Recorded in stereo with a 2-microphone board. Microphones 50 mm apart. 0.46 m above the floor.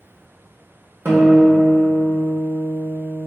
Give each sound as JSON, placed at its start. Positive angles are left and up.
{"t": 1.1, "sound": "a guitar", "side_deg": -50, "distance_m": 0.6}